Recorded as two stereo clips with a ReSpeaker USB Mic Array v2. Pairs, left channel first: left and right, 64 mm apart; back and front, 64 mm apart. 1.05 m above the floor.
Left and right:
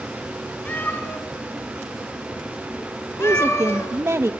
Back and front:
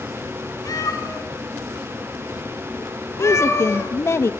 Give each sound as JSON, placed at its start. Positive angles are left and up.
{"t": 0.7, "sound": "a cat meowing", "azimuth_deg": 155, "distance_m": 4.5}
{"t": 3.2, "sound": "a woman speaking", "azimuth_deg": -140, "distance_m": 1.1}